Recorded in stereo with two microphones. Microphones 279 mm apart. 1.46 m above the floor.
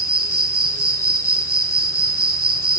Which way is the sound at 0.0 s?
55° right (ahead or behind).